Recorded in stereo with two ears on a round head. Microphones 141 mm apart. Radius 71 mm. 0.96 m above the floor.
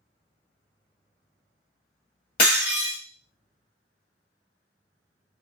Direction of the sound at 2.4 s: 70° left (ahead or behind).